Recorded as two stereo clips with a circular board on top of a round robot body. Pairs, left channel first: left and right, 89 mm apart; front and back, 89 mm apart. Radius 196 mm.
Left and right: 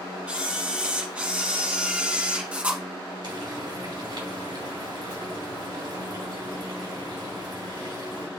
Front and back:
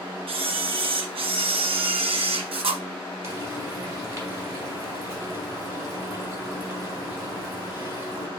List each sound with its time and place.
0.3 s a camera shutter: 165° right, 1.4 m
3.2 s frying: 115° right, 3.5 m